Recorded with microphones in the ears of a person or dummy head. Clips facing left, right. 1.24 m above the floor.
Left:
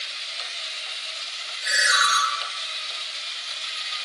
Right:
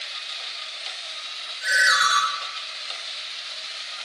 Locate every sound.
1.6 s a ringtone: 15° right (ahead or behind), 0.5 m